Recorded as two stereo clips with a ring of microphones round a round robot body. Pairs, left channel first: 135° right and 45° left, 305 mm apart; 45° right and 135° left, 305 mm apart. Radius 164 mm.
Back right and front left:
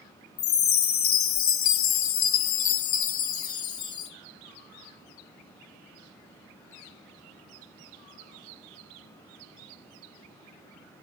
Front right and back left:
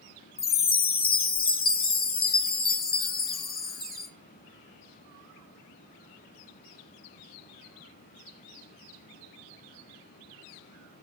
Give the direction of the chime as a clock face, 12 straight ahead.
4 o'clock.